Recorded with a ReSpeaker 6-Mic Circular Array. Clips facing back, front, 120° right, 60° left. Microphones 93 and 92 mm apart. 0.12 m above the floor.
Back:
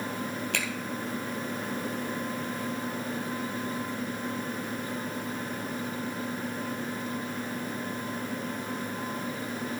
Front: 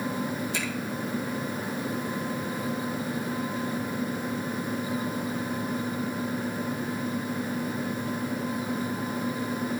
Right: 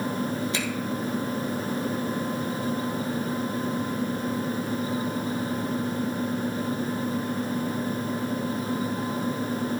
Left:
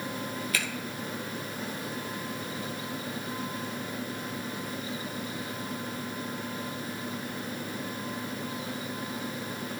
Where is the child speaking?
I don't hear a child speaking.